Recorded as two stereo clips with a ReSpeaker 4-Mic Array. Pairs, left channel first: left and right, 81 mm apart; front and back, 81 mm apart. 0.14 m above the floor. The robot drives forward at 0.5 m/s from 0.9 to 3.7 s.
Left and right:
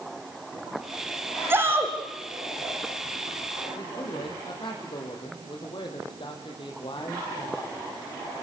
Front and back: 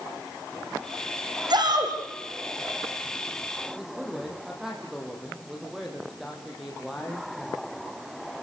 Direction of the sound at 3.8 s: 95° left.